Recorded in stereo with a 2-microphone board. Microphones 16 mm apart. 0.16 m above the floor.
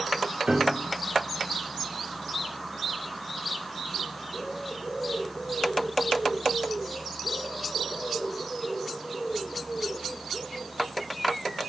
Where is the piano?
60° right (ahead or behind), 2 m.